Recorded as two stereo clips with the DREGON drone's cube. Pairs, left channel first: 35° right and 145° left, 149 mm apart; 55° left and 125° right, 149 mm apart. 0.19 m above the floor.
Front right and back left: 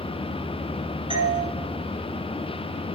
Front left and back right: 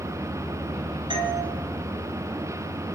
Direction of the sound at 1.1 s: 170° right.